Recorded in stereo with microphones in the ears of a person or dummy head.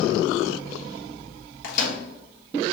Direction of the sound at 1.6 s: 60° left (ahead or behind).